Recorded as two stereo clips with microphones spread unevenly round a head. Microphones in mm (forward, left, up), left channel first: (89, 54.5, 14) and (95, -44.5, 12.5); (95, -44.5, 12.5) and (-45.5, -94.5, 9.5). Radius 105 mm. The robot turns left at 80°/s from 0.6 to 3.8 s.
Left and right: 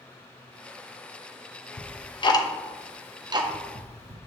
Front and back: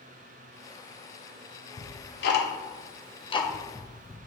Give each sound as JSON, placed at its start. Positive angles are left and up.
{"t": 1.8, "sound": "ticking", "azimuth_deg": 85, "distance_m": 0.9}